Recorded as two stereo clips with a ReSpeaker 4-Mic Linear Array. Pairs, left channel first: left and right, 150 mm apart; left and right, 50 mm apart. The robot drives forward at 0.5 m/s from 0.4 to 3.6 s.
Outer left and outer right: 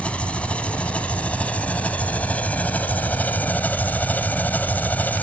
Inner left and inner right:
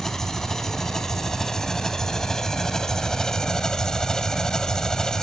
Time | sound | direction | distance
0.0 | an engine running | 10° left (ahead or behind) | ?